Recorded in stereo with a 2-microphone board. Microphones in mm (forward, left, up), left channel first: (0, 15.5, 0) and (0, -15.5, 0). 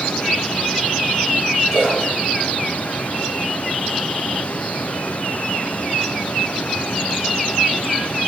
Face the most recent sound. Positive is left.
turn(degrees=-15)  # may be behind; listen again after turning